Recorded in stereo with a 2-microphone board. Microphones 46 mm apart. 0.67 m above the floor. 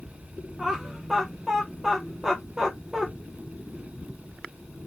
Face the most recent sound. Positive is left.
turn(degrees=-10)  # may be behind; listen again after turning